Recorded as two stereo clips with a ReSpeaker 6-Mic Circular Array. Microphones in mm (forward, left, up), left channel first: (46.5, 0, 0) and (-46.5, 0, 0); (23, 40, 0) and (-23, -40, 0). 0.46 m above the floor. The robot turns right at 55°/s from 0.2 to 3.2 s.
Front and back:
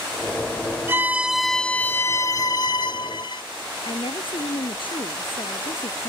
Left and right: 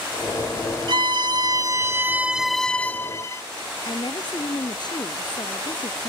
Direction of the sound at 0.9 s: 120° right.